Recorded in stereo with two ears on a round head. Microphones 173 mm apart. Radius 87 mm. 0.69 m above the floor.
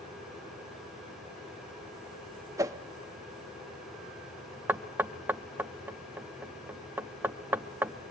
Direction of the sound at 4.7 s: 10° right (ahead or behind).